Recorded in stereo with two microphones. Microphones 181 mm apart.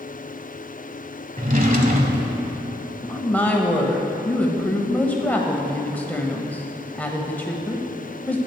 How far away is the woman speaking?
About 1.2 m.